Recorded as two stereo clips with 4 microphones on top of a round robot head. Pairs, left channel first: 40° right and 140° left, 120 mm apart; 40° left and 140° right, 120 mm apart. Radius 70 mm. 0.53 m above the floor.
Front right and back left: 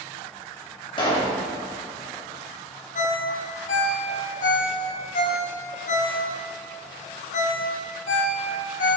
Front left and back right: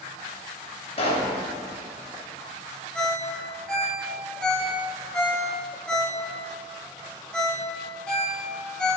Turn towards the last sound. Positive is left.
turn(degrees=-40)